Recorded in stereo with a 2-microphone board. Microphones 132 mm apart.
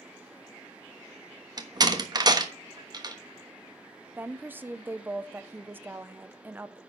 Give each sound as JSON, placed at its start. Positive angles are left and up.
{"t": 1.6, "sound": "a door slam", "side_deg": -30, "distance_m": 1.2}
{"t": 4.2, "sound": "a woman speaking", "side_deg": -15, "distance_m": 0.7}